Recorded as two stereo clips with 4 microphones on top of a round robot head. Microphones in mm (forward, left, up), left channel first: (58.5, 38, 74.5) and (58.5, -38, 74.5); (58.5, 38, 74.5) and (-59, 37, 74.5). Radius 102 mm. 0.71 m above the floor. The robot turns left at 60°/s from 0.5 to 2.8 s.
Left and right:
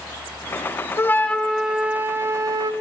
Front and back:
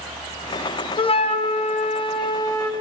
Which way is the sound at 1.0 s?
35° left.